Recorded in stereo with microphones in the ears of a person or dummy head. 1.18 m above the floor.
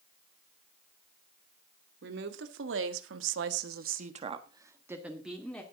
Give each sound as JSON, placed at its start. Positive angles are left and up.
{"t": 2.0, "sound": "a woman speaking", "side_deg": -70, "distance_m": 3.0}